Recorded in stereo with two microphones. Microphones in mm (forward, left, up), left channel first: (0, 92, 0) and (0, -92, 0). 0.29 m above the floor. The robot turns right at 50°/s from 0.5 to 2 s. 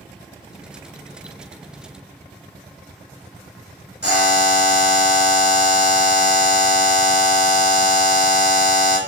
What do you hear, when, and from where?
4.0 s a buzzer: 70° left (ahead or behind), 3 m